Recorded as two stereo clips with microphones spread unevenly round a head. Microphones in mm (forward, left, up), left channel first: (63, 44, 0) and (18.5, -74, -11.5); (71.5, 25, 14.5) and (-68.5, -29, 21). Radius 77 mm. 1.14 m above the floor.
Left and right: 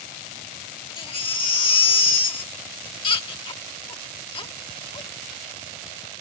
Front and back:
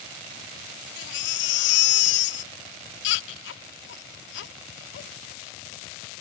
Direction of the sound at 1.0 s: 20° left.